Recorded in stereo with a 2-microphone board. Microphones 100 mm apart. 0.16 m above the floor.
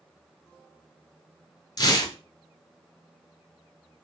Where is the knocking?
I don't hear knocking.